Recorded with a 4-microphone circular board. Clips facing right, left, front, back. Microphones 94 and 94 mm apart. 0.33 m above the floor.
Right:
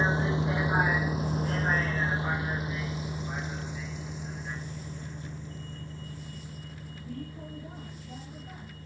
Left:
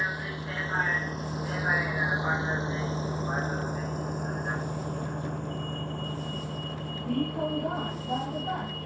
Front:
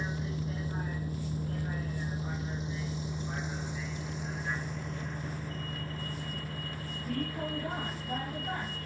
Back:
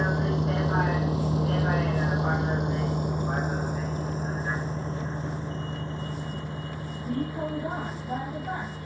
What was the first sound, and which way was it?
A vehicle, 150° right.